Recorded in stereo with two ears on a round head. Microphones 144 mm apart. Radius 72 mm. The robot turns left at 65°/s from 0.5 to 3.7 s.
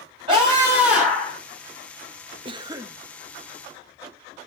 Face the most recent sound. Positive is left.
turn(degrees=150)